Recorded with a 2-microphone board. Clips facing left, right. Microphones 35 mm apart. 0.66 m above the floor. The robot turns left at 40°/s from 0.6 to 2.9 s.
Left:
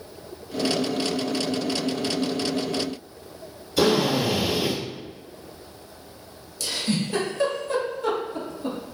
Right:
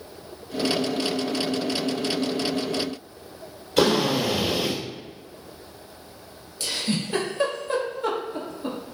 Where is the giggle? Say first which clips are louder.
Left 1 dB; 25° right (ahead or behind), 1.3 m.